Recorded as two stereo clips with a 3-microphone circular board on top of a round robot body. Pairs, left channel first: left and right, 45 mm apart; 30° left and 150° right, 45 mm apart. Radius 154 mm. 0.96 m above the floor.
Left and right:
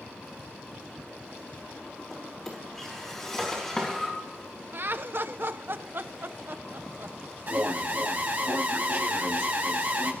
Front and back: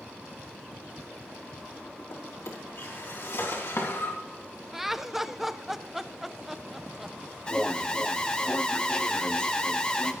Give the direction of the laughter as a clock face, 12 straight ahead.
2 o'clock.